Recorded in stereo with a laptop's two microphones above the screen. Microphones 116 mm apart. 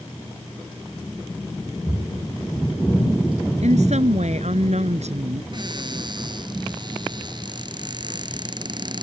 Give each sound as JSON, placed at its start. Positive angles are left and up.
{"t": 3.6, "sound": "a woman speaking", "side_deg": -75}
{"t": 5.5, "sound": "a cupboard door", "side_deg": -40}